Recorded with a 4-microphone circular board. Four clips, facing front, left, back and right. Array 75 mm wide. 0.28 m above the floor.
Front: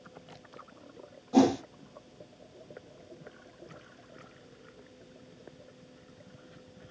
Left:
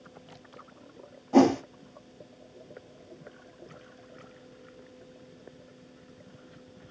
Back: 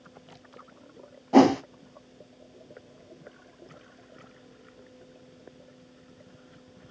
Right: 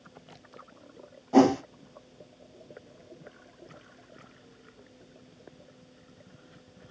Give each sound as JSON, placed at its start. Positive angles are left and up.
{"t": 1.3, "sound": "a whoosh", "azimuth_deg": 180, "distance_m": 0.5}